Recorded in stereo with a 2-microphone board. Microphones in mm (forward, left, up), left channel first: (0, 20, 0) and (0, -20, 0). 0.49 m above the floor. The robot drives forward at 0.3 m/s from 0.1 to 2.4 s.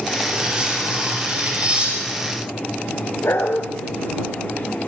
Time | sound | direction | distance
0.3 | cutlery clinking | 25° right (ahead or behind) | 8 m
3.2 | a dog barking | 80° left | 2 m